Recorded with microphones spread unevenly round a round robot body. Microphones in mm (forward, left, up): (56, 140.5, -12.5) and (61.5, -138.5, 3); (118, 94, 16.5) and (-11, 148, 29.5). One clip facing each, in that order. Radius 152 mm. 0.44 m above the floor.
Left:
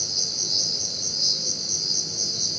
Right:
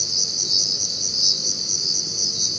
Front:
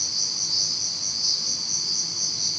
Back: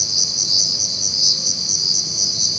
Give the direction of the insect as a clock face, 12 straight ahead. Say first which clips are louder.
Right 1 dB, back 7 dB; 6 o'clock.